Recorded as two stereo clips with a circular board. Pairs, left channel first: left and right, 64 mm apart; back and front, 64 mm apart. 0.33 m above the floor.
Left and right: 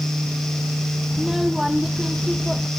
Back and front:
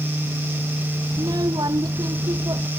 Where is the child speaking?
5° right; by 2.7 s 5° left.